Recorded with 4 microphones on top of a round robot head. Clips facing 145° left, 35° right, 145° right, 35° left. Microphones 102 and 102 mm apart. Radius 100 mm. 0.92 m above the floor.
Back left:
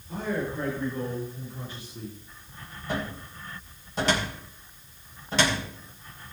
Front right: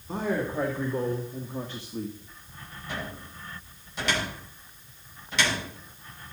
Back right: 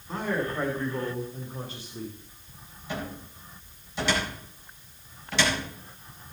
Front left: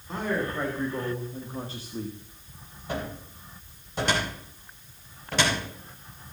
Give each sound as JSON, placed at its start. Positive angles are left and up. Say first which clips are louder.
{"t": 0.1, "sound": "a man speaking", "louder": "front right 2 dB, even", "azimuth_deg": -50, "distance_m": 3.0}
{"t": 2.9, "sound": "a cupboard door", "louder": "back left 5 dB, front left 2 dB", "azimuth_deg": 85, "distance_m": 4.0}